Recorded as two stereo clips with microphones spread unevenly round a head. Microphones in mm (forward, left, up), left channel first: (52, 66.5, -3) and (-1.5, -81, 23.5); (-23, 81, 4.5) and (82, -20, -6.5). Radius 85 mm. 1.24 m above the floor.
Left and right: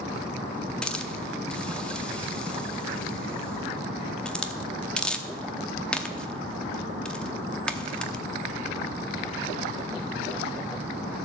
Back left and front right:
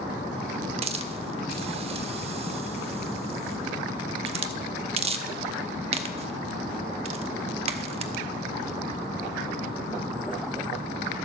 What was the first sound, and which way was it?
A hiss, 25° right.